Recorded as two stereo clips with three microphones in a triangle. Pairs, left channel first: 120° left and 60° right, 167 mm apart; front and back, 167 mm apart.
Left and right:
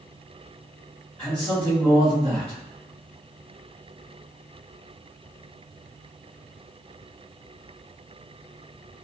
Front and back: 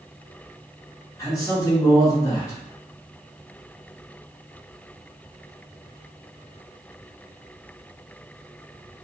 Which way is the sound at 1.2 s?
45° left.